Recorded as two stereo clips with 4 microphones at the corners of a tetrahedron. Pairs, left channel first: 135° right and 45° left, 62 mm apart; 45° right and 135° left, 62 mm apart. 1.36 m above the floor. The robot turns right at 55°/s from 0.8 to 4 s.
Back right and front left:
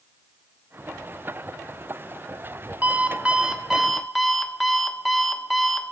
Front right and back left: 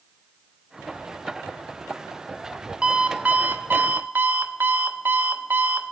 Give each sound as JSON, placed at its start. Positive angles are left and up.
{"t": 2.8, "sound": "an alarm clock", "azimuth_deg": 70, "distance_m": 0.8}